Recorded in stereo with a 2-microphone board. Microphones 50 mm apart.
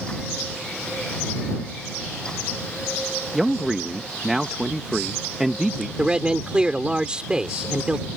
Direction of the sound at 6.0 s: 20° right (ahead or behind).